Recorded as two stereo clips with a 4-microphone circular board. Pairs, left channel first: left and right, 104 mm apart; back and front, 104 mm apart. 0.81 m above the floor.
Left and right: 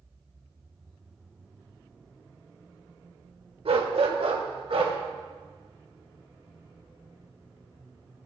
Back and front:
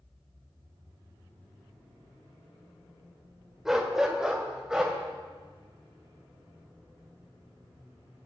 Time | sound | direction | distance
3.6 | a dog barking | 85° right | 1.2 m